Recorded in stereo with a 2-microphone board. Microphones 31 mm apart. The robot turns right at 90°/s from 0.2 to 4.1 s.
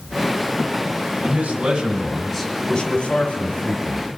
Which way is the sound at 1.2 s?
100° right.